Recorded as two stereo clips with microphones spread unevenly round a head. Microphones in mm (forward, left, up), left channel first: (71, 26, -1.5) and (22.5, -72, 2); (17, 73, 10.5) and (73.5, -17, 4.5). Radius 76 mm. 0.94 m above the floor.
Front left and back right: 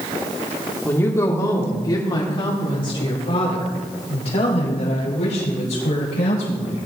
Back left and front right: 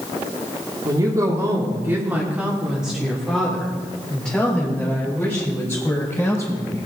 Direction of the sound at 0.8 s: 5° right.